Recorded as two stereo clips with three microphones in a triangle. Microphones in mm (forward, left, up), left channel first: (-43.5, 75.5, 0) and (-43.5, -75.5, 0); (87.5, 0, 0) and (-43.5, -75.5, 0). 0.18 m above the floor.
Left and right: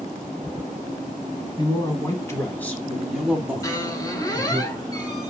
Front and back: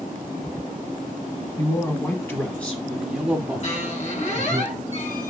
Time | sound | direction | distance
1.6 | a man speaking | 70° left | 1.5 m
3.6 | a squeak | 30° left | 1.4 m